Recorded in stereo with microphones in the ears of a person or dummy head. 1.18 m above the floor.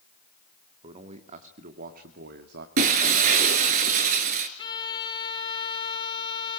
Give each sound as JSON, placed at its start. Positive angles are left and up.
{"t": 0.8, "sound": "a man speaking", "side_deg": -30, "distance_m": 2.0}
{"t": 2.8, "sound": "breaking glass", "side_deg": -35, "distance_m": 1.7}
{"t": 4.6, "sound": "a violin", "side_deg": 25, "distance_m": 1.6}